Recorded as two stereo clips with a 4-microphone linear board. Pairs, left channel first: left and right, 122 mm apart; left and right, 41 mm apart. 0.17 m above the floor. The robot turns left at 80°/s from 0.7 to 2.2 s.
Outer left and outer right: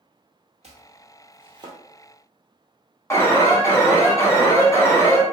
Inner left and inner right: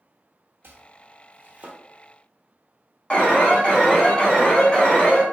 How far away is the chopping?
About 0.8 m.